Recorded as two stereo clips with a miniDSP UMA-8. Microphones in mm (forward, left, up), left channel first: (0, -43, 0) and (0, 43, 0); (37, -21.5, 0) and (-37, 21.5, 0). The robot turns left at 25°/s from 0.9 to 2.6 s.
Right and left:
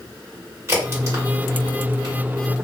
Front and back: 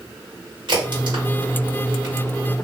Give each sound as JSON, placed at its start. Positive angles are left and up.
{"t": 0.7, "sound": "a crack", "azimuth_deg": 145, "distance_m": 1.6}